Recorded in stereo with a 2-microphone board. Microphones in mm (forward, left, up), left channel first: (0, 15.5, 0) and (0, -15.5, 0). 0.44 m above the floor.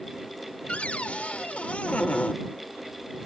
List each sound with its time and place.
0.7 s a cupboard door: 45° left (ahead or behind)